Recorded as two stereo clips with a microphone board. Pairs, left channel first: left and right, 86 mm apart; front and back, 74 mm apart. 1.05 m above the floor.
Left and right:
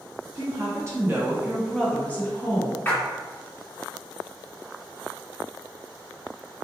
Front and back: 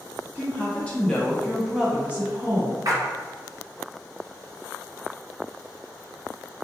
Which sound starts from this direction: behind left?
A splash, at 2.9 s.